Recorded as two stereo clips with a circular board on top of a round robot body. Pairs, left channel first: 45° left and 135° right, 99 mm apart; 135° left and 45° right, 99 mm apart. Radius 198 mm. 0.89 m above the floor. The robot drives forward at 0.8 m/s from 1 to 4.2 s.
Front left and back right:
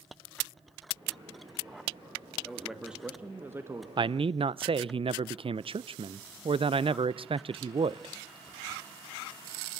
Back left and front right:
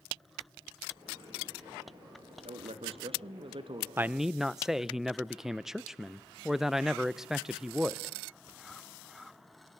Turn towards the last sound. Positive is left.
turn(degrees=-130)